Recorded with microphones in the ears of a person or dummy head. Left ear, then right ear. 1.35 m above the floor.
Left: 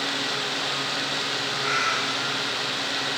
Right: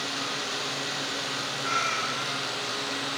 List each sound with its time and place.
1.6 s a cat meowing: 45° left (ahead or behind), 4.5 m